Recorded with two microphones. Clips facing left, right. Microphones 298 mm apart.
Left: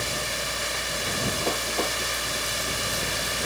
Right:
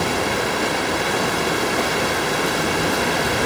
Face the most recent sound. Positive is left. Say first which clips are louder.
# right 13 dB
turn(degrees=-70)  # may be behind; listen again after turning